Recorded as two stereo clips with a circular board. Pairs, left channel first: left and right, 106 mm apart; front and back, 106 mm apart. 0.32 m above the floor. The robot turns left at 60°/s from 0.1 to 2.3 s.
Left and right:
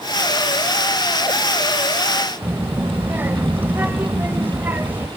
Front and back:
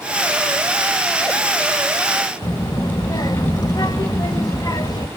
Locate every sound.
2.4 s a child speaking: 25° right, 1.0 m